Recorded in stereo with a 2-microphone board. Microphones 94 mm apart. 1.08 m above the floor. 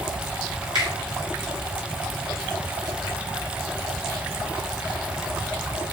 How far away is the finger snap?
About 1.1 m.